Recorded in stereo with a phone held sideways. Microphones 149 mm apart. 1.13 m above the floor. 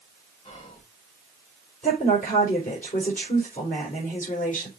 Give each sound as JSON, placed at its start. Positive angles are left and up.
{"t": 0.4, "sound": "whispering", "side_deg": 50, "distance_m": 4.5}
{"t": 1.8, "sound": "a woman speaking", "side_deg": 65, "distance_m": 4.0}